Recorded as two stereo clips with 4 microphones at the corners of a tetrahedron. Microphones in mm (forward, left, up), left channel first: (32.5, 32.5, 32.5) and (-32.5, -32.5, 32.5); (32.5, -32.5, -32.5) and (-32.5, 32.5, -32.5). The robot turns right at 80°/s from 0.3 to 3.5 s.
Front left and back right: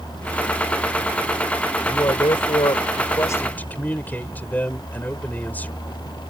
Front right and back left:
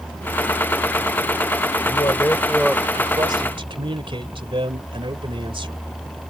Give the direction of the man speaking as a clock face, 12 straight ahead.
1 o'clock.